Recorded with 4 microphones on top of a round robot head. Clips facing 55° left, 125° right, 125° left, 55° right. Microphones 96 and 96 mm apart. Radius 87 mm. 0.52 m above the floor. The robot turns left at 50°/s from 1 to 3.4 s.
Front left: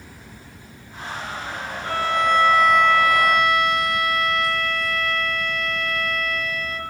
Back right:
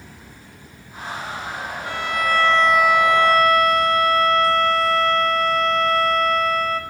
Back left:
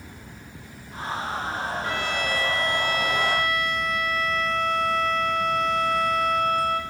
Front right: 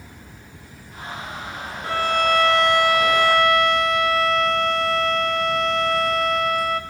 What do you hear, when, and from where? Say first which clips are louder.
1.8 s a violin: front left 3 dB, front right 7 dB; 5° left, 1.2 m; by 6.8 s 70° right, 1.2 m